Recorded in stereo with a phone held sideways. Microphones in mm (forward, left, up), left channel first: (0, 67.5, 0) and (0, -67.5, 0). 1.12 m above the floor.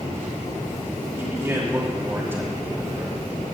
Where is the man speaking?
15° right (ahead or behind), 2.5 m.